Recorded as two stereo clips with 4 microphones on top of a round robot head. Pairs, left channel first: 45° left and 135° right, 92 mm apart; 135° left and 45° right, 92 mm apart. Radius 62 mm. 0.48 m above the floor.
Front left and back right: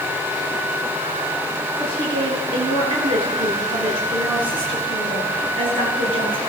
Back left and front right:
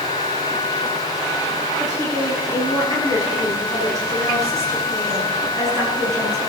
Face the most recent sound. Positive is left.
turn(degrees=-110)